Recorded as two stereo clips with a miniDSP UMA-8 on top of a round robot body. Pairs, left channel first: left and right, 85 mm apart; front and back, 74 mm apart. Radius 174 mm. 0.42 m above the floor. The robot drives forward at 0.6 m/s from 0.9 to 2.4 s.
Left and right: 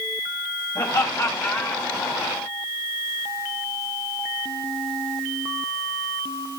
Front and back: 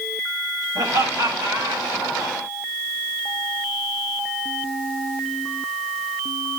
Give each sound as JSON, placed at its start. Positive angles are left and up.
{"t": 0.8, "sound": "laughter", "azimuth_deg": 145, "distance_m": 3.5}